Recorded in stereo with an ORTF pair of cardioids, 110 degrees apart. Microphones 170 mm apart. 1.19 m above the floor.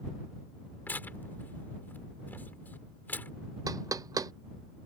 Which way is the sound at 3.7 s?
20° right.